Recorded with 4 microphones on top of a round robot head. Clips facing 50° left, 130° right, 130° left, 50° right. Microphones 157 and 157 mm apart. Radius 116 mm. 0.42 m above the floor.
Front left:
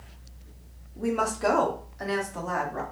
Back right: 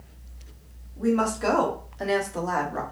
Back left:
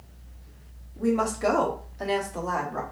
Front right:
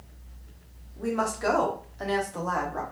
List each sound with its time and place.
1.0 s a woman speaking: 90° left, 0.8 m; by 2.8 s 145° right, 1.2 m